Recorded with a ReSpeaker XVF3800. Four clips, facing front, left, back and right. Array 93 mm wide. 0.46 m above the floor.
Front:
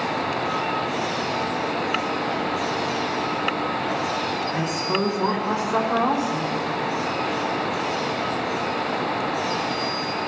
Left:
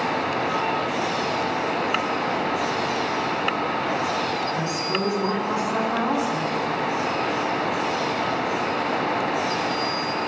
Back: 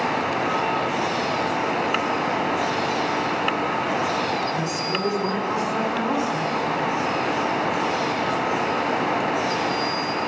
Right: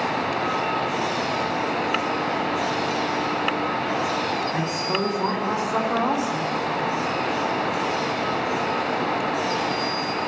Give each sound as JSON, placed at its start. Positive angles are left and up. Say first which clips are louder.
{"t": 4.5, "sound": "a woman speaking", "louder": "even, front 1 dB", "azimuth_deg": -55, "distance_m": 3.0}